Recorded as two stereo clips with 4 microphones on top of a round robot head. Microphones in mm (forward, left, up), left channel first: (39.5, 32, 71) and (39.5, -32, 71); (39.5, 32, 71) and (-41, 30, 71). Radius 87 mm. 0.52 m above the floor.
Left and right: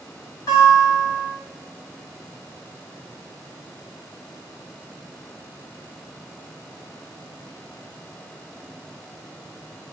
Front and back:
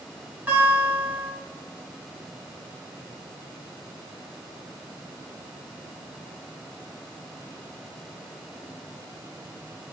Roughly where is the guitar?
Behind left.